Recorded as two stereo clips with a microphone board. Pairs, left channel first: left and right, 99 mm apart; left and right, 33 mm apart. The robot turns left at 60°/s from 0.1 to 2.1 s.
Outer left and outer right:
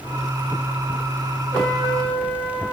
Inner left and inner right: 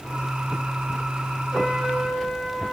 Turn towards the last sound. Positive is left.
turn(degrees=125)